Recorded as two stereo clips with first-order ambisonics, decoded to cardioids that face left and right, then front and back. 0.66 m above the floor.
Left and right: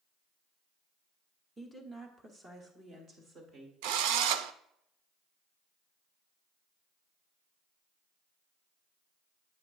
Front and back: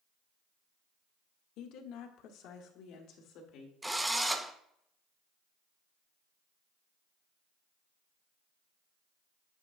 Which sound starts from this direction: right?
A drill, at 3.8 s.